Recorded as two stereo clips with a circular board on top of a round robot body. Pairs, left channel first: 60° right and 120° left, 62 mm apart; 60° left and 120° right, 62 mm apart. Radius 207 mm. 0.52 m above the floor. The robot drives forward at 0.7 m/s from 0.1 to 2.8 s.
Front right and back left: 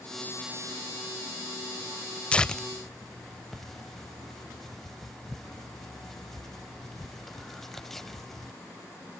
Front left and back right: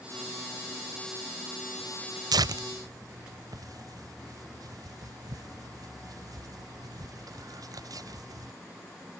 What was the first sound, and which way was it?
Tearing paper, 135° right.